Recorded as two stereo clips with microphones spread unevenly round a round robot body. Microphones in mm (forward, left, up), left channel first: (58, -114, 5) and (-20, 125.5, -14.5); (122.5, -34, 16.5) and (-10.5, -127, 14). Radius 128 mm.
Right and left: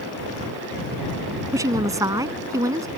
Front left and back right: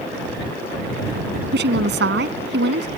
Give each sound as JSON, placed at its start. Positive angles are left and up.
{"t": 1.5, "sound": "a woman speaking", "azimuth_deg": -175}